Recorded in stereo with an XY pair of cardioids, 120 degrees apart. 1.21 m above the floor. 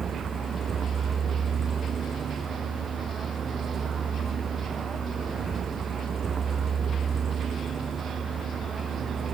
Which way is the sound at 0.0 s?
35° right.